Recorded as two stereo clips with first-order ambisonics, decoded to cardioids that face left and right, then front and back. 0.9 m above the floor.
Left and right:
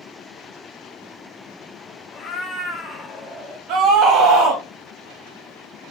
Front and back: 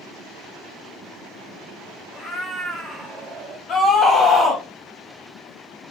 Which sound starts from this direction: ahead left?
A cat meowing, at 2.1 s.